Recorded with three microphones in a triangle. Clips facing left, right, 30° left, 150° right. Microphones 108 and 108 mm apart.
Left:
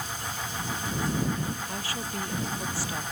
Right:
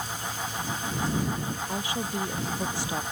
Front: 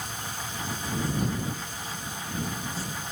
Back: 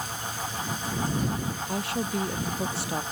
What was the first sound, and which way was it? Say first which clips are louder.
A woman speaking: right 3 dB, back 9 dB; 160° right.